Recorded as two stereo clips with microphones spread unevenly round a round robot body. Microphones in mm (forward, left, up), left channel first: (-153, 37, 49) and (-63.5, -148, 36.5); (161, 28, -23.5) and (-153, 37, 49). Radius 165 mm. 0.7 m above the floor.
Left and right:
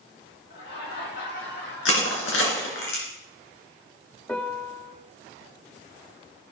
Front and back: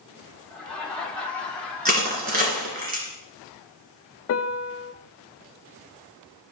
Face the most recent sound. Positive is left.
turn(degrees=30)